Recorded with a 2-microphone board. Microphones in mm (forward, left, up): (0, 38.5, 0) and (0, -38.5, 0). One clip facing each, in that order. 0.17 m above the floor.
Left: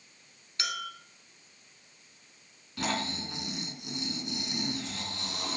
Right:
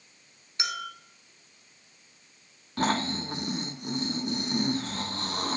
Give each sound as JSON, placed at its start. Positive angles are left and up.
{"t": 0.6, "sound": "a clink", "side_deg": -20, "distance_m": 1.1}
{"t": 2.8, "sound": "snoring", "side_deg": -50, "distance_m": 0.6}